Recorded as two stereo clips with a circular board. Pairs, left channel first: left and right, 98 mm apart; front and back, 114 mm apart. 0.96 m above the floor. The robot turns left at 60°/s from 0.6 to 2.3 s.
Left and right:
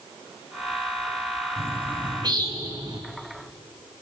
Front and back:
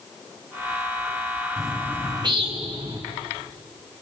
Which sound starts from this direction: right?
A bird, at 1.6 s.